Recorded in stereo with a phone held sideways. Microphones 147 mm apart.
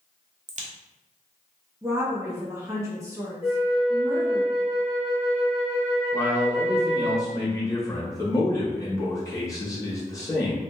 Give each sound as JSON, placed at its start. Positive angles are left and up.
{"t": 0.5, "sound": "a crack", "side_deg": -55, "distance_m": 0.5}
{"t": 1.8, "sound": "a woman speaking", "side_deg": -20, "distance_m": 1.1}
{"t": 3.4, "sound": "a flute", "side_deg": 35, "distance_m": 0.7}
{"t": 6.1, "sound": "a man speaking", "side_deg": 20, "distance_m": 0.9}